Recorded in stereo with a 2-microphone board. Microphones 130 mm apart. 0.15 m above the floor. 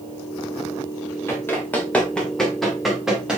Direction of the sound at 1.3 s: 20° left (ahead or behind).